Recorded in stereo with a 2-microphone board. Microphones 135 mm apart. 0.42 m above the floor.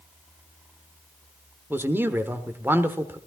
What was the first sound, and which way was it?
A man speaking, 15° right (ahead or behind).